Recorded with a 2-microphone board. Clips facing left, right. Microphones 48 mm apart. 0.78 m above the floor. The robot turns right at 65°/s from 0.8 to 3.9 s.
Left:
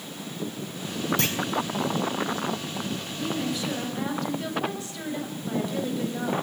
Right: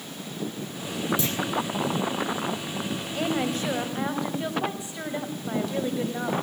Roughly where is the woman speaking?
Ahead right.